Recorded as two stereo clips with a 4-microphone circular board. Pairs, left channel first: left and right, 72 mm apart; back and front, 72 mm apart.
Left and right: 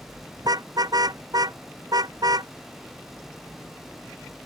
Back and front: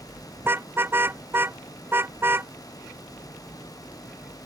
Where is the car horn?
60° right.